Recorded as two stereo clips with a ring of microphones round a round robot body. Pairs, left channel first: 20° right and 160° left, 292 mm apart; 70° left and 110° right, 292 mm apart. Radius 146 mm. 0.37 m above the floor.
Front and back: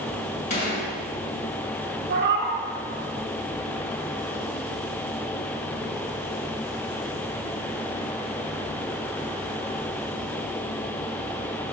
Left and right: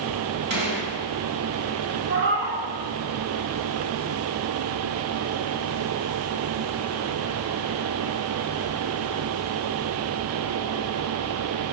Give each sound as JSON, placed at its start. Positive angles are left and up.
{"t": 0.5, "sound": "a gunshot", "azimuth_deg": -80, "distance_m": 2.0}
{"t": 2.1, "sound": "a cat meowing", "azimuth_deg": -155, "distance_m": 0.9}